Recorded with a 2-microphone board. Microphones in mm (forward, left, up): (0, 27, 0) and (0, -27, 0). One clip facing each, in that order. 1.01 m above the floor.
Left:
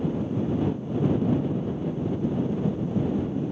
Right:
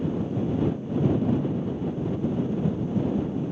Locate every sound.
Only background noise.